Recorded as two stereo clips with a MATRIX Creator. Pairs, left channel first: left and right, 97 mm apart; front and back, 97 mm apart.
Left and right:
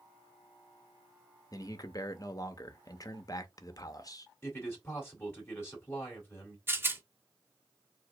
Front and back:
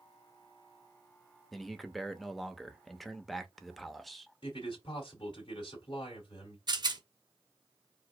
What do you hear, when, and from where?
1.5 s a man speaking: 85° left, 0.7 m
4.4 s a man speaking: 25° left, 2 m
6.7 s a rattle: 150° right, 0.7 m